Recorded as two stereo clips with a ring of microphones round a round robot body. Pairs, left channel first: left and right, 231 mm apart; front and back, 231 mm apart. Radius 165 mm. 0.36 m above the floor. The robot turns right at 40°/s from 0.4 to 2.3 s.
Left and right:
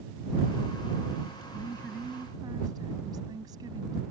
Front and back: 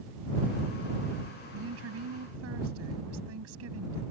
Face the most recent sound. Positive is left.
turn(degrees=-165)